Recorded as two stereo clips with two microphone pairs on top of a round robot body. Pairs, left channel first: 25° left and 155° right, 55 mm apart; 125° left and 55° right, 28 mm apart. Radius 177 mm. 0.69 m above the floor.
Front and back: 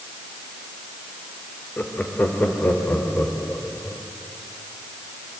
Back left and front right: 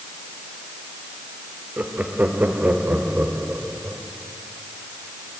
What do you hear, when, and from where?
1.8 s laughter: 40° right, 2.5 m; by 4.0 s 30° right, 3.5 m